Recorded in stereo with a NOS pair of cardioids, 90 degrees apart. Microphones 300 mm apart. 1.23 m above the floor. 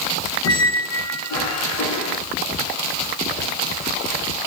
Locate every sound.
0.4 s a squeak: 60° left, 0.9 m